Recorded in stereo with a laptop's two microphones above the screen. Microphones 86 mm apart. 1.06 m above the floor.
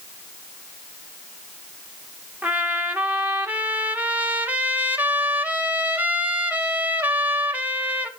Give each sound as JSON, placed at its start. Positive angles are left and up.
{"t": 2.4, "sound": "a trumpet", "side_deg": -20, "distance_m": 1.0}